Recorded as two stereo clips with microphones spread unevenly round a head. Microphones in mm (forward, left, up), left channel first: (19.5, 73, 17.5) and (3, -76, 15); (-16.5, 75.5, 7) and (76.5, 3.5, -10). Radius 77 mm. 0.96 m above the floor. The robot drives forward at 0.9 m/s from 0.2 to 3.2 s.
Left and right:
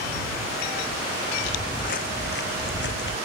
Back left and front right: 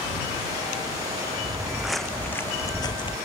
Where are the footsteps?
40° left; by 3.2 s 105° left.